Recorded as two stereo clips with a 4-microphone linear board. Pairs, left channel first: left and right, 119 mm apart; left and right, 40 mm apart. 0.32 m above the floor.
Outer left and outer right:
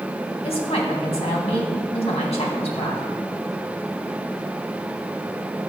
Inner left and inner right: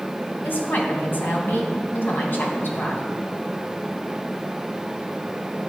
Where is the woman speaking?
60° left (ahead or behind), 2.5 m.